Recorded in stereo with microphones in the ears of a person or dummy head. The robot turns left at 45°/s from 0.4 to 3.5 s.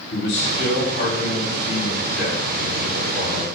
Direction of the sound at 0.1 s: 75° left.